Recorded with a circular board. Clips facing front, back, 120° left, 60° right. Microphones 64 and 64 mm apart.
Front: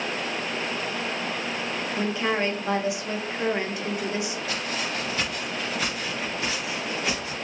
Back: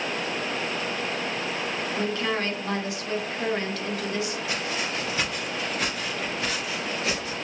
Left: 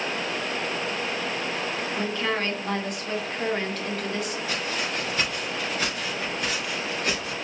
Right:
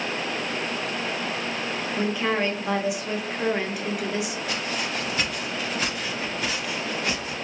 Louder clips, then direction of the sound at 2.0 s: Front 3 dB, right 4 dB; 5° right.